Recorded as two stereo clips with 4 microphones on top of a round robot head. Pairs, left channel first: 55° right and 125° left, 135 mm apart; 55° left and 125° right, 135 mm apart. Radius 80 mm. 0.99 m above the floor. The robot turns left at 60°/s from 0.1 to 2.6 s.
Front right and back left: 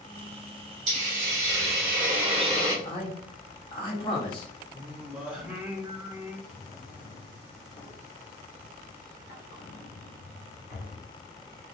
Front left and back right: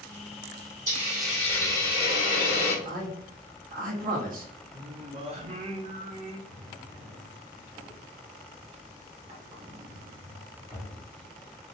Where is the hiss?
170° left, 1.0 m; by 2.8 s 65° left, 1.0 m.